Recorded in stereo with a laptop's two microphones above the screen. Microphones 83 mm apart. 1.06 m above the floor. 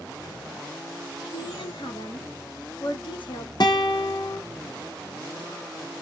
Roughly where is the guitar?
Left.